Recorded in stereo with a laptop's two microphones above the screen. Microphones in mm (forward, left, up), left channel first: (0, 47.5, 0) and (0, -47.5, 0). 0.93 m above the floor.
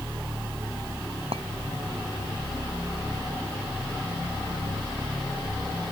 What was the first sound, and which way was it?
A clink, 90° right.